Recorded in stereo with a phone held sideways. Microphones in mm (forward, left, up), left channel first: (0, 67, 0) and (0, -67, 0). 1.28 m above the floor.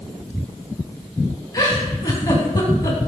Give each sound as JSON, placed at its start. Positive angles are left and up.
{"t": 1.5, "sound": "a giggle", "side_deg": 30, "distance_m": 4.0}